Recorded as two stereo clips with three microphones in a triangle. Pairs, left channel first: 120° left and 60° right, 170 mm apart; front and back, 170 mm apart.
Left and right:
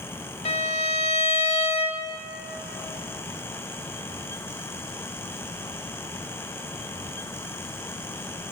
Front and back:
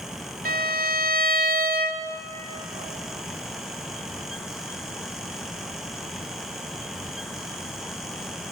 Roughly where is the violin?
Behind.